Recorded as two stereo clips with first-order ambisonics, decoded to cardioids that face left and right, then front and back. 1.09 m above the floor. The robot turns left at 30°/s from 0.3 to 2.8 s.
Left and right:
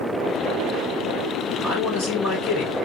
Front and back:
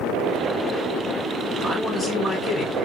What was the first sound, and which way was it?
A man speaking, 90° left.